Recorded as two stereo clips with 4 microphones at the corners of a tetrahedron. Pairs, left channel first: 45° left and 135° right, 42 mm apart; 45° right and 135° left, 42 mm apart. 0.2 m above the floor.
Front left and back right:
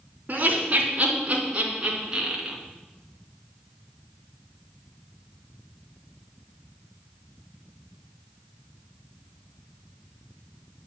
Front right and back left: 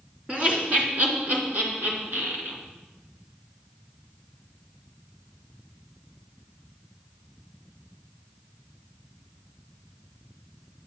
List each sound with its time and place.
0.3 s laughter: 170° right, 3 m; by 2.6 s 160° left, 3 m